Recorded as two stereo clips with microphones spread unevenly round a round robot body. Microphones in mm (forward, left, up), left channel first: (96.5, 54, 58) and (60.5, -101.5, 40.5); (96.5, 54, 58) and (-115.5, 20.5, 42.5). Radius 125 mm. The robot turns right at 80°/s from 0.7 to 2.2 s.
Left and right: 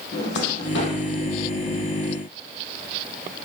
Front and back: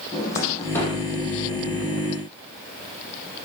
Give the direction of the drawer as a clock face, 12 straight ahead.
9 o'clock.